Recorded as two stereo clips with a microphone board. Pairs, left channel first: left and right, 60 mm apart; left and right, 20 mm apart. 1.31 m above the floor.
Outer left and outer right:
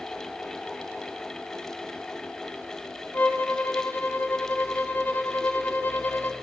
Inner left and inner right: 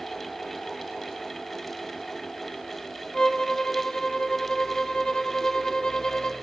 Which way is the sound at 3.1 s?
30° left (ahead or behind).